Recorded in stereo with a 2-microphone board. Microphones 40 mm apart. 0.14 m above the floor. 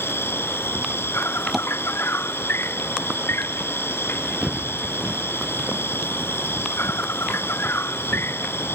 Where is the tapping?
5° right (ahead or behind).